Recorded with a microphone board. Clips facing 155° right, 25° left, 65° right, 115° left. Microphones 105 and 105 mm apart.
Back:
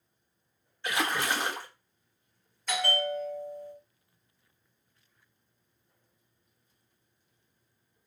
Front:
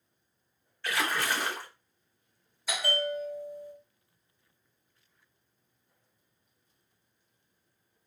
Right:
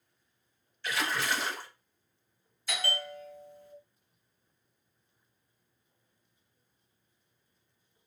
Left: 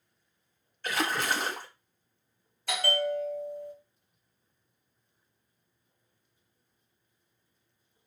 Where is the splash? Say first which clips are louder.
Back 1 dB, left 2 dB; 140° left, 0.7 m.